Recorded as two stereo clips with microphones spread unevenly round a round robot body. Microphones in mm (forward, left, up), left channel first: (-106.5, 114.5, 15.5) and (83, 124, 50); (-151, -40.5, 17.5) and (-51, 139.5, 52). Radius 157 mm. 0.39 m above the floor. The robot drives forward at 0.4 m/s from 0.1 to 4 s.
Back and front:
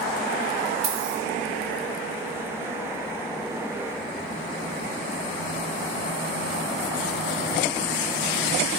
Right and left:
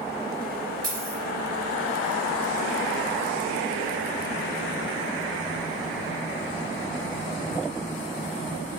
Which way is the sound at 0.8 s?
20° right.